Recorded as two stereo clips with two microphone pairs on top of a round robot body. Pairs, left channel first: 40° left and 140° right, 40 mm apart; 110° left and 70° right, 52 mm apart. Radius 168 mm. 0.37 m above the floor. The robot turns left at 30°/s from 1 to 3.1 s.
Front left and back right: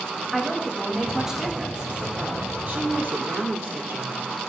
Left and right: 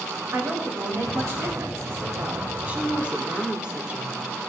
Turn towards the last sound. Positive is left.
turn(degrees=-140)